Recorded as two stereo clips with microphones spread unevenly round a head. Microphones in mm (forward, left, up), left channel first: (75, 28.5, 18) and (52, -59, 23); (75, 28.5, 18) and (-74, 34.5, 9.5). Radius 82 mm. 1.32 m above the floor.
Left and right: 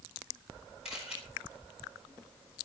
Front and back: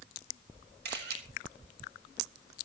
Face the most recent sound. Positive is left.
turn(degrees=170)